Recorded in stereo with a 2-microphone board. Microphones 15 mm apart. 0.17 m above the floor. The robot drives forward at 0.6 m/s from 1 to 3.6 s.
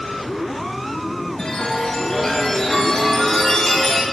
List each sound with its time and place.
1.4 s a chime: 60° left (ahead or behind), 1.7 m; by 4.0 s 40° left (ahead or behind), 2.5 m